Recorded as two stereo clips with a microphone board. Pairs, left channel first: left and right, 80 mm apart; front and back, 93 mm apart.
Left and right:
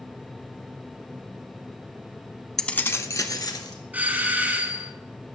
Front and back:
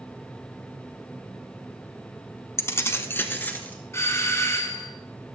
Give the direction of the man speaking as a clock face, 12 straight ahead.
I don't hear a man speaking.